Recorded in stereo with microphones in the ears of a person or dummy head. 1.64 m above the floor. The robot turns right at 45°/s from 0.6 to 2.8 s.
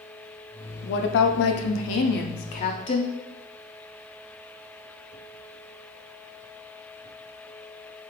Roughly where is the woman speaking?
Ahead left.